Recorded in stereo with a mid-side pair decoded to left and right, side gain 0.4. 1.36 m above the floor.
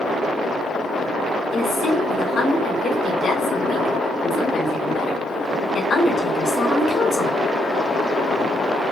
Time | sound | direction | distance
1.5 | a woman speaking | 50° left | 2.5 m